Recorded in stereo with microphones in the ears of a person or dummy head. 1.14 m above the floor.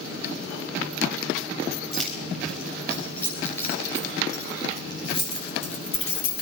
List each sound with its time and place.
1.9 s keys jangling: 5° left (ahead or behind), 3.5 m; by 6.4 s 40° left (ahead or behind), 2 m